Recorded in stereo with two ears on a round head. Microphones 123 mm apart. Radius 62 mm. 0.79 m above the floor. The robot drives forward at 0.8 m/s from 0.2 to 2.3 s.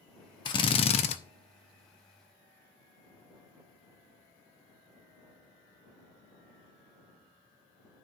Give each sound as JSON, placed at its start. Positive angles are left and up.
{"t": 0.5, "sound": "a drill", "side_deg": 30, "distance_m": 0.8}